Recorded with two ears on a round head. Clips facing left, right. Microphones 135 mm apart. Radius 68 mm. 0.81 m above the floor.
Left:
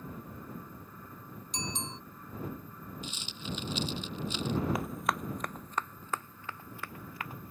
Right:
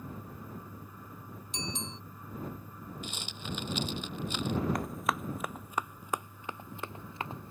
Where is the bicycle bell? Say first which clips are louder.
Even; 35° left (ahead or behind).